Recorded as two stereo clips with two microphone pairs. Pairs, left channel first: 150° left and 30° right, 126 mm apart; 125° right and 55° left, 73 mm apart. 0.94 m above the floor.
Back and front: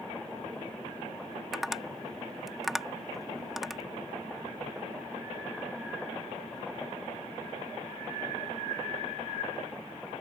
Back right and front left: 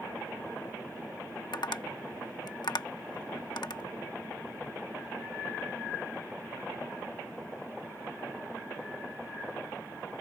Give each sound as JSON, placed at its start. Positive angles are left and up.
{"t": 1.5, "sound": "tapping", "azimuth_deg": -120}